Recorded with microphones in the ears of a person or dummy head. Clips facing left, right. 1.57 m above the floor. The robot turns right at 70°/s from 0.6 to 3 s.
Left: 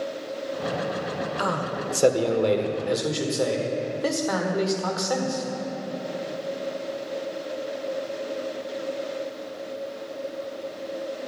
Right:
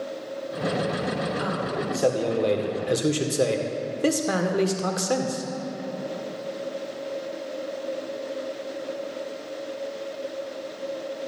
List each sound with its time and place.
1.4 s a man speaking: 105° left, 1.5 m; by 5.5 s 140° right, 1.5 m